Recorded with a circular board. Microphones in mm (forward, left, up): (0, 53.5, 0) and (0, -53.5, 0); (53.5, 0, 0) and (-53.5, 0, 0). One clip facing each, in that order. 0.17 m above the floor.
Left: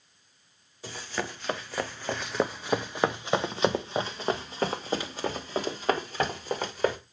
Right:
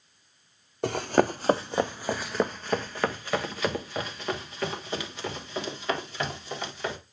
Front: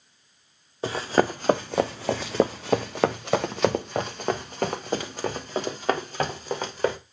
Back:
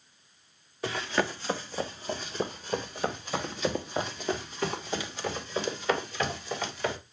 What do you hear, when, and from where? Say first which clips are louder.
0.8 s running footsteps: right 12 dB, front 7 dB; 65° right, 0.9 m; by 7.0 s 45° left, 3.5 m